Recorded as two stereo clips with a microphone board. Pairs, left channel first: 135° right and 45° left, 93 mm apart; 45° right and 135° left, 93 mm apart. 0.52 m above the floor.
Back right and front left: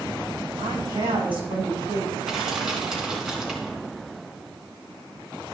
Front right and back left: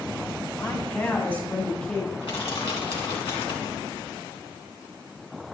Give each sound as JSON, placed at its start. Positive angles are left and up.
{"t": 0.6, "sound": "a woman speaking", "azimuth_deg": 25, "distance_m": 5.5}
{"t": 2.2, "sound": "crushing", "azimuth_deg": -40, "distance_m": 3.0}